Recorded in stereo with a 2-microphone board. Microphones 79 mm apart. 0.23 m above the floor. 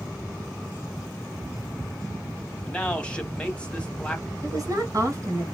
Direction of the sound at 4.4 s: 45° right (ahead or behind).